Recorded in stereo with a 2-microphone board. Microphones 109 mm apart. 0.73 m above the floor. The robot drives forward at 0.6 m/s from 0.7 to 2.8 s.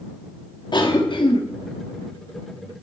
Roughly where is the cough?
Left.